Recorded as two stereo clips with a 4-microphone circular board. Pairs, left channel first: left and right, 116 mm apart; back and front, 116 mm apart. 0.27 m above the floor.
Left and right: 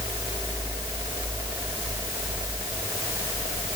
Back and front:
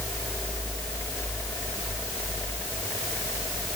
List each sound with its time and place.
Only background noise.